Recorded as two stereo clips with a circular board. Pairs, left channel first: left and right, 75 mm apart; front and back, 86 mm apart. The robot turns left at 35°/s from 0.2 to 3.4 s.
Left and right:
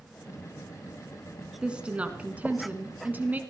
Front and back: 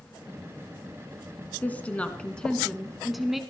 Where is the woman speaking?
35° right, 1.2 m; by 3.4 s 95° right, 1.2 m.